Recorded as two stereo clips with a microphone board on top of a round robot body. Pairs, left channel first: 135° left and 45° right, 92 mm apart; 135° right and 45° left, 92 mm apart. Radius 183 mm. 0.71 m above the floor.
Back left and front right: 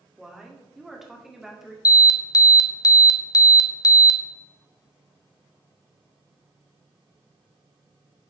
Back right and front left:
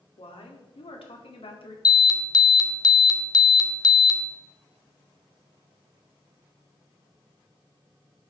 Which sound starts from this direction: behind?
An alarm, at 1.9 s.